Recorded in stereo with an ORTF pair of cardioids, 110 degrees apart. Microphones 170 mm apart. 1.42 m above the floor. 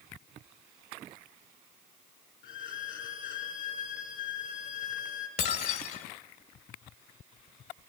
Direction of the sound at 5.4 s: 65° left.